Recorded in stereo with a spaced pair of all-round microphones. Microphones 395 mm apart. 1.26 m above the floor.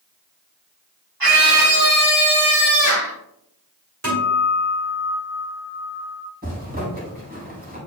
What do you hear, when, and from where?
1.2 s a scream: 60° right (ahead or behind), 3 m; by 3.1 s 35° right (ahead or behind), 4 m
4.0 s a guitar: 45° right (ahead or behind), 3.5 m
6.4 s a zipper: 25° right (ahead or behind), 4 m